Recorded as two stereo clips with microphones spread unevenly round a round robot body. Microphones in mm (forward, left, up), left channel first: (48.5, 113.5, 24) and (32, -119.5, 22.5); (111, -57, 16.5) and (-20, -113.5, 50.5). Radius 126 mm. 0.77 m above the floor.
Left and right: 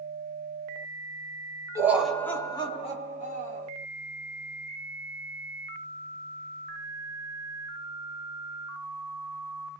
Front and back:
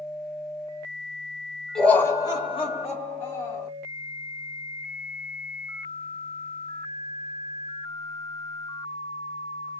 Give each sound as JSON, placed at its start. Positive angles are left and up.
{"t": 1.8, "sound": "laughter", "azimuth_deg": -35, "distance_m": 0.8}